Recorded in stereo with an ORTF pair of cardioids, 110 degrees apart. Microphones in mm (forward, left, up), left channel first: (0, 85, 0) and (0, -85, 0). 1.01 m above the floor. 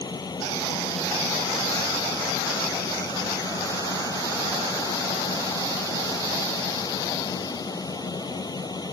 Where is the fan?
25° left.